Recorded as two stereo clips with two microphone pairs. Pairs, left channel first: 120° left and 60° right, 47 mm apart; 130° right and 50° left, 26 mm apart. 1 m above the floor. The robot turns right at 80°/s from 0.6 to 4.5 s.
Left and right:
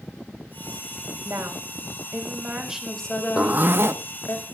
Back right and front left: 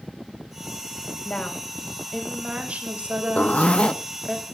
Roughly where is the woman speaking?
Right.